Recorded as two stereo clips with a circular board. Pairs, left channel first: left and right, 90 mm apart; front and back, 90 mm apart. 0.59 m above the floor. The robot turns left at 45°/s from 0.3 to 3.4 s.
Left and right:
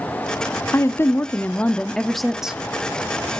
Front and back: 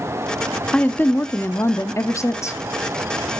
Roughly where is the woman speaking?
Left.